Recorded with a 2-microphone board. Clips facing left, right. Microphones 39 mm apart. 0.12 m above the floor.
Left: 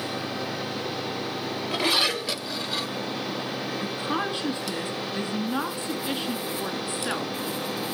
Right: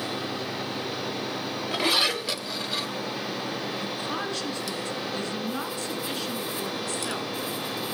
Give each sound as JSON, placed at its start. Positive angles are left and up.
{"t": 3.8, "sound": "a woman speaking", "side_deg": 20, "distance_m": 1.3}